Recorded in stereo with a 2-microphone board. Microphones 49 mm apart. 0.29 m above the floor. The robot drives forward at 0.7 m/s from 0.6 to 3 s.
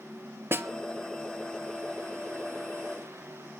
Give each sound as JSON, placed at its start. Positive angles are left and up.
{"t": 0.5, "sound": "a snare drum", "side_deg": -50, "distance_m": 1.0}